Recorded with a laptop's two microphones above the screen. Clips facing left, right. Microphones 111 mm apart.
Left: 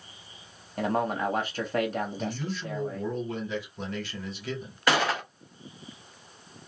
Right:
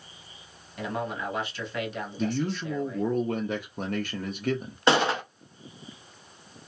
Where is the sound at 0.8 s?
45° left (ahead or behind), 0.8 m.